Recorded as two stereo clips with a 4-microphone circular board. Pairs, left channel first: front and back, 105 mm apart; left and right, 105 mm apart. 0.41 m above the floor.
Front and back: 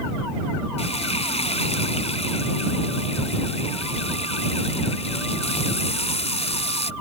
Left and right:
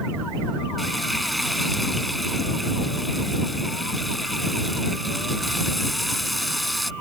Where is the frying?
Straight ahead.